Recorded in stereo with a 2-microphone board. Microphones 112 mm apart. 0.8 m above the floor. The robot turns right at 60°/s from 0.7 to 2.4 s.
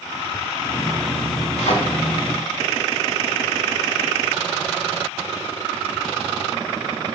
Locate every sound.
1.6 s a thud: 80° left, 1.6 m